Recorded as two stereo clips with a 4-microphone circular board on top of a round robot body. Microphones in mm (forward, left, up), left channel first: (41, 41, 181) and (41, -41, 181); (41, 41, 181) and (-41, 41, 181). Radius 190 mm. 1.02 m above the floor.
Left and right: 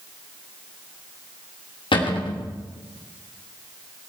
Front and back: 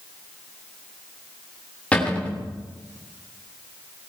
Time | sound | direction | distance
1.9 | a cupboard door | 75° left | 3 m